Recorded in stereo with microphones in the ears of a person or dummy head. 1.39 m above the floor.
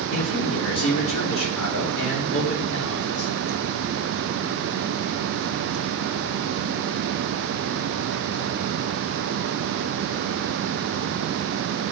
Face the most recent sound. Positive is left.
turn(degrees=70)  # may be behind; listen again after turning